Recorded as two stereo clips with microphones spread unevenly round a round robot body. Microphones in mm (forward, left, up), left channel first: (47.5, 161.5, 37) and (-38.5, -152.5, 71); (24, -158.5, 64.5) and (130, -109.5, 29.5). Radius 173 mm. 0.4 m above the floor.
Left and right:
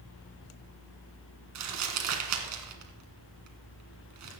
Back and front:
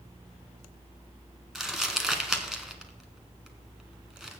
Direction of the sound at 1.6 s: 60° right.